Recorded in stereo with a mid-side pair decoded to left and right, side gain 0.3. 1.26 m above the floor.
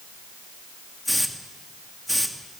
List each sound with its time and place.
1.1 s a hiss: straight ahead, 2.5 m